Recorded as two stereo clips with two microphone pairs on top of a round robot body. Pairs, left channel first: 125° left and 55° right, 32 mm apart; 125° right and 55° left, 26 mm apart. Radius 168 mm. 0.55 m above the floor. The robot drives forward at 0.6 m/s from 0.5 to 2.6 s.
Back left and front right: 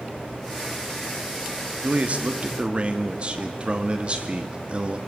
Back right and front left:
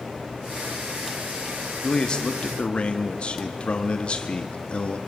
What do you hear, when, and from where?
1.8 s a man speaking: 75° right, 1.6 m; by 5.0 s 95° right, 1.6 m